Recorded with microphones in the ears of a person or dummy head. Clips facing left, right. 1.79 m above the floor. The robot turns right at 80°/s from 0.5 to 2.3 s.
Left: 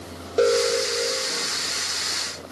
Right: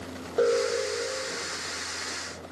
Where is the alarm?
35° left, 3.5 m; by 1.5 s 115° left, 3.5 m.